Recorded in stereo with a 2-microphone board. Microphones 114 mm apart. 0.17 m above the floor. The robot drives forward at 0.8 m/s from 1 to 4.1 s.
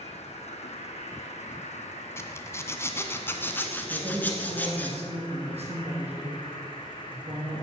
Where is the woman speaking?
65° right (ahead or behind), 4 m.